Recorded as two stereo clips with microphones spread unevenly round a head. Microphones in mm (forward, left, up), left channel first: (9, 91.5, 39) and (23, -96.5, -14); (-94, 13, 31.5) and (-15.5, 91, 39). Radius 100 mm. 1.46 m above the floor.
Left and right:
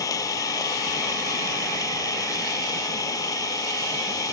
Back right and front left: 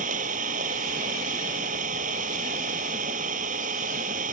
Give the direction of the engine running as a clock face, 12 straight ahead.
11 o'clock.